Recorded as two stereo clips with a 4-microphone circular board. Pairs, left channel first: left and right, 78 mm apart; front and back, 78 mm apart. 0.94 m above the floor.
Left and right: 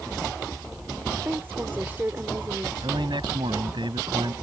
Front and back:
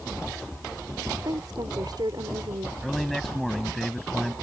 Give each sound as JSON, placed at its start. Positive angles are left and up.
{"t": 1.2, "sound": "a woman speaking", "azimuth_deg": -155}
{"t": 2.8, "sound": "a man speaking", "azimuth_deg": -85}